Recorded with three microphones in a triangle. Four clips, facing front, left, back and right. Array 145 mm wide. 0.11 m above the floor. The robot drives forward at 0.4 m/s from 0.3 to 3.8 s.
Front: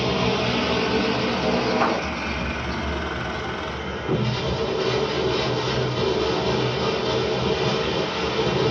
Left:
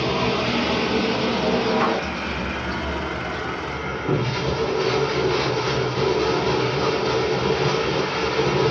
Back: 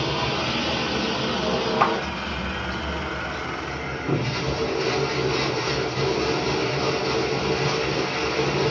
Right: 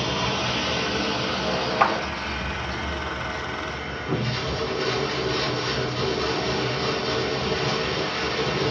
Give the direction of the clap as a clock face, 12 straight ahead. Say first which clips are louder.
Right 1 dB, back 3 dB; 4 o'clock.